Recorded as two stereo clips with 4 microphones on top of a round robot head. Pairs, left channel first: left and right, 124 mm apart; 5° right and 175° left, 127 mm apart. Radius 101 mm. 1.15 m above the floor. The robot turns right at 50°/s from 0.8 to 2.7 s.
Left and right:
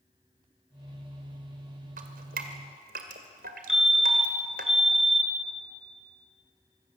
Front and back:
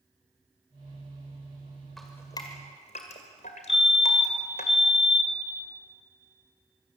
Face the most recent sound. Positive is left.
turn(degrees=-5)